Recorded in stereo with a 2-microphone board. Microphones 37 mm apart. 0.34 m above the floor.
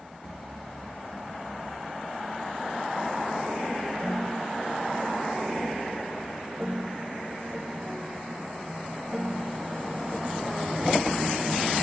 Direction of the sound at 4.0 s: 5° right (ahead or behind).